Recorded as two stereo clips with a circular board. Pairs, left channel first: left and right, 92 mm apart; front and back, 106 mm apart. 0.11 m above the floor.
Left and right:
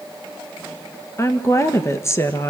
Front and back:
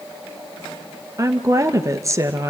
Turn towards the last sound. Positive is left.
turn(degrees=135)